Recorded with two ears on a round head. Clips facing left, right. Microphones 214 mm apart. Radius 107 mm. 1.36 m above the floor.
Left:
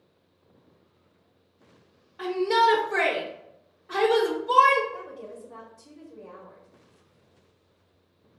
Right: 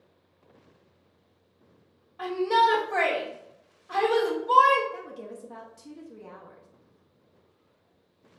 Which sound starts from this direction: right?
A woman speaking, at 4.9 s.